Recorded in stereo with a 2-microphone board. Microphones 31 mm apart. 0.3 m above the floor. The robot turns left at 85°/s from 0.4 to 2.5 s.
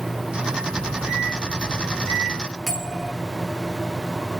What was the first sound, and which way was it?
A microwave, 20° right (ahead or behind).